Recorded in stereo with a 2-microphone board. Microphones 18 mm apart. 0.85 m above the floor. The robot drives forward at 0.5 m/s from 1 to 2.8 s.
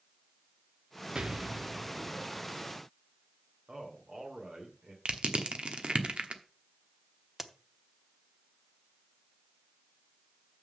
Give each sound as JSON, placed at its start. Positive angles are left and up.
{"t": 1.1, "sound": "an explosion", "side_deg": -50, "distance_m": 0.7}
{"t": 3.7, "sound": "a man speaking", "side_deg": -75, "distance_m": 2.5}
{"t": 5.0, "sound": "crushing", "side_deg": -70, "distance_m": 1.1}
{"t": 7.4, "sound": "a crack", "side_deg": -30, "distance_m": 0.8}